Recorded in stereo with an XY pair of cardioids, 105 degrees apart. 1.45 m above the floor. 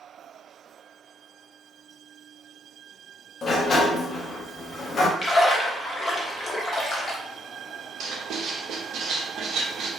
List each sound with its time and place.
3.4 s a sliding door: 45° left, 0.5 m
5.2 s a splash: 40° left, 0.7 m
8.0 s writing: 65° right, 0.7 m